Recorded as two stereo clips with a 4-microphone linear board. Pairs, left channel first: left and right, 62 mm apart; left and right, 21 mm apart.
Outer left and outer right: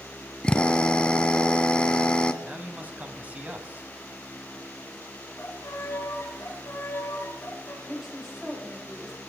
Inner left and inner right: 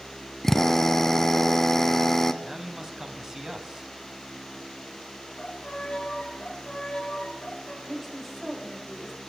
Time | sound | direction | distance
0.4 | a drill | 20° left (ahead or behind) | 0.7 m
2.4 | a man speaking | 25° right (ahead or behind) | 1.5 m
5.4 | a violin | 45° left (ahead or behind) | 2.5 m
7.8 | a woman speaking | 5° right (ahead or behind) | 8 m